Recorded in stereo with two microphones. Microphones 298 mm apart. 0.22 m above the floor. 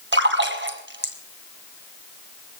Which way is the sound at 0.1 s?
40° right (ahead or behind).